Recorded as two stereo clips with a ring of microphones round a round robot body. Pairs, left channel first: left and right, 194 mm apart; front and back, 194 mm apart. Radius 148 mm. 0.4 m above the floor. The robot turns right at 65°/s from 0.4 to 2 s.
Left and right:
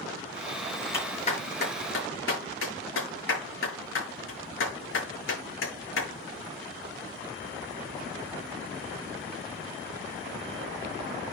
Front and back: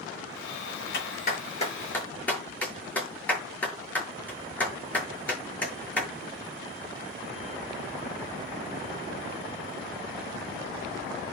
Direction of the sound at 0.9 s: 15° left.